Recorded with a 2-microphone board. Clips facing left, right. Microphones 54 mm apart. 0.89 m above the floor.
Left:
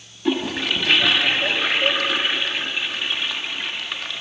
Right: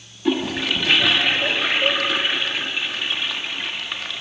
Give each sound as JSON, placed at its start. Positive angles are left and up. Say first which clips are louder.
{"t": 0.2, "sound": "a toilet flushing", "louder": "right 1 dB", "side_deg": 0, "distance_m": 1.5}